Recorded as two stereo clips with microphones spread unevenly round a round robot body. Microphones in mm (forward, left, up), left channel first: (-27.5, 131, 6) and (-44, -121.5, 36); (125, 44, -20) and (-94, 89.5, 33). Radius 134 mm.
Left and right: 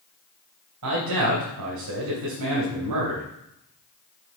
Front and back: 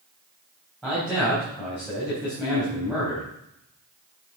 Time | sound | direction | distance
0.8 | a man speaking | 100° right | 4 m